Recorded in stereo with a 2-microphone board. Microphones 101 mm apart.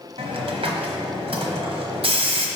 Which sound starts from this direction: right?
A hiss, at 0.2 s.